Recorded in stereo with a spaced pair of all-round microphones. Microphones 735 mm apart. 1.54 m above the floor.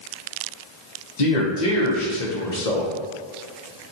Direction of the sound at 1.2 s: 65° left (ahead or behind).